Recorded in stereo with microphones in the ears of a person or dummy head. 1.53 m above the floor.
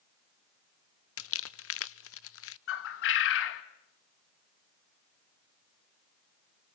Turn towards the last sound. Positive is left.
turn(degrees=65)  # may be behind; listen again after turning